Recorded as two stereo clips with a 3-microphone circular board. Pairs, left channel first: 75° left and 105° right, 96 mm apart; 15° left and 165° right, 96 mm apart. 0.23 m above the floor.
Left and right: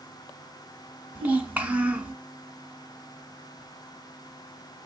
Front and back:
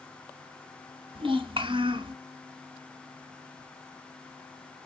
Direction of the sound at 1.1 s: Straight behind.